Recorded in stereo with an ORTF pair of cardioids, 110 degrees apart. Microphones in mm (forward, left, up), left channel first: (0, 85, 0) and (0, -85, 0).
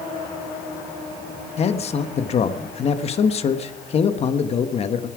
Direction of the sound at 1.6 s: 40° left.